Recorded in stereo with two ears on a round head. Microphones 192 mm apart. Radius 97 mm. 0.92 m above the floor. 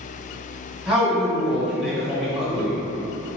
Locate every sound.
0.9 s a man speaking: 5° right (ahead or behind), 1.3 m